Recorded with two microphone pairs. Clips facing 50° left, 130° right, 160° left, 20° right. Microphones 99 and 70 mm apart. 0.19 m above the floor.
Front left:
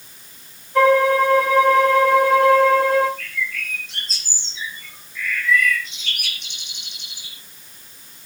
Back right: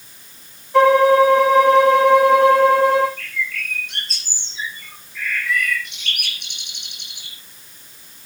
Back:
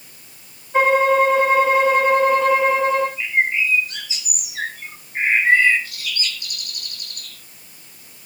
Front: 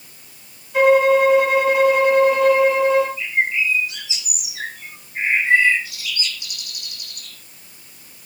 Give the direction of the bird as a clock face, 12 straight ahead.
5 o'clock.